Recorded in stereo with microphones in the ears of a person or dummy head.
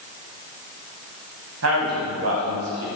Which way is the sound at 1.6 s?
60° right (ahead or behind).